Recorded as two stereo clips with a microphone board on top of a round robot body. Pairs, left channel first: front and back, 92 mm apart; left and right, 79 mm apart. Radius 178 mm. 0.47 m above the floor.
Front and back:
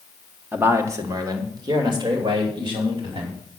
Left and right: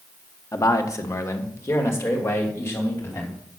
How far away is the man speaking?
About 1.6 m.